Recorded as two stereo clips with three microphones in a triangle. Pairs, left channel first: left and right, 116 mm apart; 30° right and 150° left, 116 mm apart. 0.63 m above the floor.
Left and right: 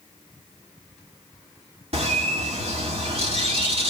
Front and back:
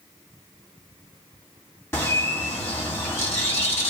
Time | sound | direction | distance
1.9 | a bird | 100° right | 1.8 m